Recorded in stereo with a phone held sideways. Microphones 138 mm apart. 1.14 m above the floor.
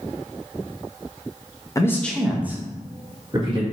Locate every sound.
1.8 s a man speaking: 25° left (ahead or behind), 0.6 m; by 3.6 s 35° right (ahead or behind), 1.4 m